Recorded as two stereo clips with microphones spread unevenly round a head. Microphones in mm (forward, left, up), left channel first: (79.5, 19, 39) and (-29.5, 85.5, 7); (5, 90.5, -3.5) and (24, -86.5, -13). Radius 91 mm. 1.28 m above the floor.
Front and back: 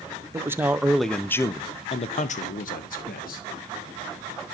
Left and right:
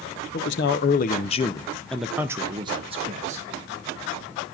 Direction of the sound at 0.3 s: 95° left.